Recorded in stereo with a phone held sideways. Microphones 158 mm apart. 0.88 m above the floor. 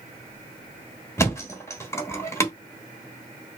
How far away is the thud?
About 1.2 m.